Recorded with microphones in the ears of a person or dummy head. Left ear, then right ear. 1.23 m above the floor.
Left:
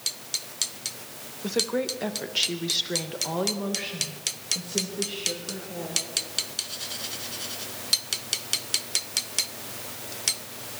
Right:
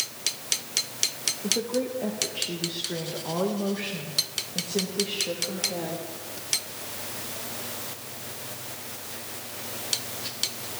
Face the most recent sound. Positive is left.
turn(degrees=-20)  # may be behind; listen again after turning